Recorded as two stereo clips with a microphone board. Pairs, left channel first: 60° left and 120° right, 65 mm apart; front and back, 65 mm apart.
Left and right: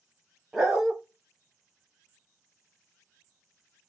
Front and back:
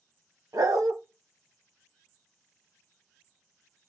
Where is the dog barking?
155° left, 0.6 m.